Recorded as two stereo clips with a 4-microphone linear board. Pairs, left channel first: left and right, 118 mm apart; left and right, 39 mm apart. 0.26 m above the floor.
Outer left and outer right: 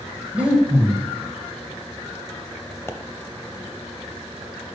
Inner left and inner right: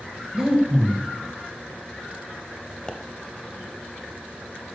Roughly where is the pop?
Left.